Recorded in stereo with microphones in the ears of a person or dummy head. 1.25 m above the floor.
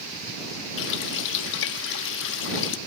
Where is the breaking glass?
I don't hear breaking glass.